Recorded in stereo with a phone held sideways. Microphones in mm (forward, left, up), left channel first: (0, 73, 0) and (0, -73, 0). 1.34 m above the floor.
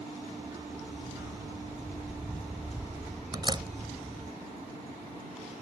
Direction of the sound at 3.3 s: 30° right (ahead or behind).